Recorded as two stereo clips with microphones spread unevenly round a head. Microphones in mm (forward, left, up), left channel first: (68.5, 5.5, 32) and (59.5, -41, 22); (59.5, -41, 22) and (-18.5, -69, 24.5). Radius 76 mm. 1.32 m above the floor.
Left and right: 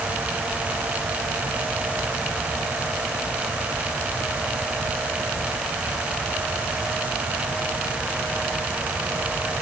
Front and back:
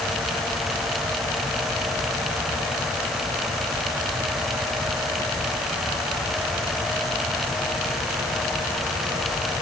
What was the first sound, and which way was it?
Only background noise.